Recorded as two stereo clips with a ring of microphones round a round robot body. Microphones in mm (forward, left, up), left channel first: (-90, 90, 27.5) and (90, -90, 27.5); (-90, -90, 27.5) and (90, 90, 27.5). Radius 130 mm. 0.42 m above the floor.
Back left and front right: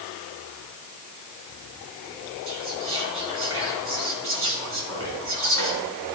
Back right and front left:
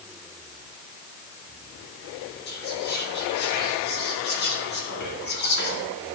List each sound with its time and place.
2.5 s whispering: 85° right, 4 m